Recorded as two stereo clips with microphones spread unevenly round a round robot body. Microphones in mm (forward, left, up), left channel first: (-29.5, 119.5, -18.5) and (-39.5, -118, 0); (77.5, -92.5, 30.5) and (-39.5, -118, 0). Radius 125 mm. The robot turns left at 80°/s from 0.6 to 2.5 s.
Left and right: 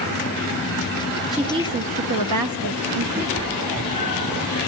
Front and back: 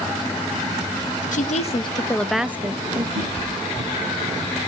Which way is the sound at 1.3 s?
Straight ahead.